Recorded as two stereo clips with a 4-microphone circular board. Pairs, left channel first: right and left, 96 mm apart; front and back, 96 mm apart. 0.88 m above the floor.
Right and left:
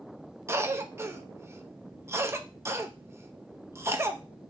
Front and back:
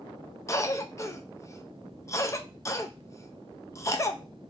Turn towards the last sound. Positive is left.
turn(degrees=40)